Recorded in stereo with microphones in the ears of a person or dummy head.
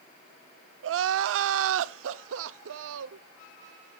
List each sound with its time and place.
0.8 s crying: 70° right (ahead or behind), 0.5 m